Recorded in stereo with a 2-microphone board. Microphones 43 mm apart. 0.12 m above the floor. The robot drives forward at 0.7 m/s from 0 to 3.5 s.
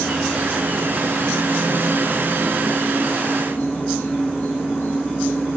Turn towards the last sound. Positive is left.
turn(degrees=65)  # may be behind; listen again after turning